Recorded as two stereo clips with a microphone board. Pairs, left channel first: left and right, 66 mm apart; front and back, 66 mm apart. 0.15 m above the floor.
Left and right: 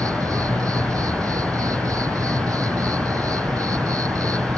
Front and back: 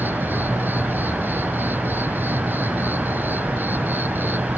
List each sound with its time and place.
0.0 s an insect: 120° right